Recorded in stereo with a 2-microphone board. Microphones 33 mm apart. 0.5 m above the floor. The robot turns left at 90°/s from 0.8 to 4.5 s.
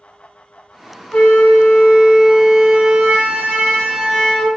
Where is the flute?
100° left, 1.7 m; by 4.5 s 155° left, 1.7 m.